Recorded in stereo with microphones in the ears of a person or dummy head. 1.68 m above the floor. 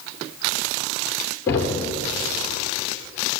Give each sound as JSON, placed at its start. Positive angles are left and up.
{"t": 1.5, "sound": "knocking", "side_deg": 15, "distance_m": 3.0}